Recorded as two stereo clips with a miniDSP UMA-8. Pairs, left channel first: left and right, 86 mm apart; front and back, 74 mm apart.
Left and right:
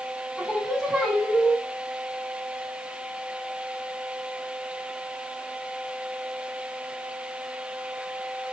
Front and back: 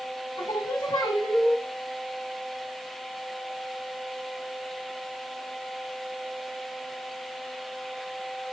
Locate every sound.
0.4 s singing: straight ahead, 6.5 m